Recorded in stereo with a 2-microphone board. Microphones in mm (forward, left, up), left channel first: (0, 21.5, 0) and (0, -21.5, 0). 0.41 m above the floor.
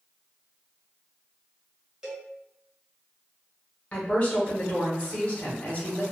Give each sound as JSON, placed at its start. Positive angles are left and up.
{"t": 2.0, "sound": "a cowbell", "side_deg": -15, "distance_m": 1.0}
{"t": 3.9, "sound": "a woman speaking", "side_deg": 30, "distance_m": 0.9}